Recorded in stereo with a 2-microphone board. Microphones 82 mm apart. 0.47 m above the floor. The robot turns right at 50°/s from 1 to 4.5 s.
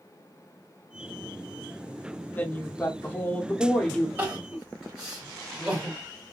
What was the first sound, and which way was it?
A woman speaking, 20° left (ahead or behind).